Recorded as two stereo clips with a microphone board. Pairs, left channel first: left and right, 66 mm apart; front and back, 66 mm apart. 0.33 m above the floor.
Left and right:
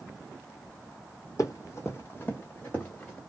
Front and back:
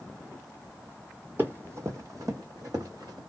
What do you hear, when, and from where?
1.4 s running footsteps: 120° left, 0.9 m; by 3.2 s 170° left, 1.5 m